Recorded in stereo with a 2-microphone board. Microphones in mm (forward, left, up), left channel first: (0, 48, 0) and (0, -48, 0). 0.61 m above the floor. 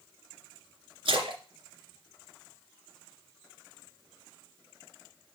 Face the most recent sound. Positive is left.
turn(degrees=-75)  # may be behind; listen again after turning